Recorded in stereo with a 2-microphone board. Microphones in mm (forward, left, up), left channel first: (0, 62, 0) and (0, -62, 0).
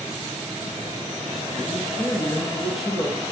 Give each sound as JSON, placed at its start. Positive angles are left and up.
{"t": 1.7, "sound": "a man speaking", "side_deg": -5, "distance_m": 3.0}